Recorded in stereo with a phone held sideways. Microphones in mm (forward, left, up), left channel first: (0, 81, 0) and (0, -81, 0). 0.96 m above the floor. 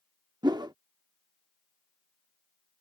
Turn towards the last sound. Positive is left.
turn(degrees=-25)  # may be behind; listen again after turning